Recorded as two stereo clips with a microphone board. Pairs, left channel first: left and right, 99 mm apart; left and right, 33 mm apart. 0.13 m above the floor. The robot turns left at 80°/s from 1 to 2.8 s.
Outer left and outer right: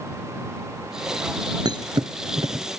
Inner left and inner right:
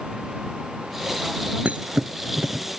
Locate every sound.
1.6 s a thud: 45° right (ahead or behind); by 2.6 s 30° right (ahead or behind)